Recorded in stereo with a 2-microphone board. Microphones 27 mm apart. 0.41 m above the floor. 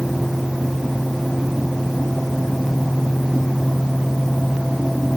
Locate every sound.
Only background noise.